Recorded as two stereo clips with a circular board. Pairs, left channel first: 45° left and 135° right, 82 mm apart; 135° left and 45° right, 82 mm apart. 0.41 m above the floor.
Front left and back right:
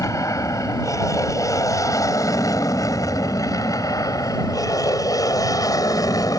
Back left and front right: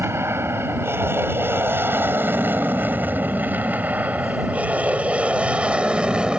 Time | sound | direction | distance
0.0 | an aircraft | 10° left | ?